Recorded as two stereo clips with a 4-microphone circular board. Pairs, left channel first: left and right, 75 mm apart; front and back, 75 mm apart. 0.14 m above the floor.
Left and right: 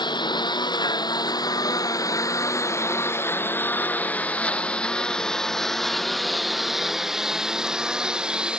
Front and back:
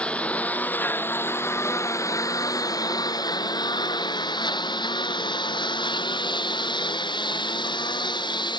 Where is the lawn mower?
75° left; by 8.6 s 10° right.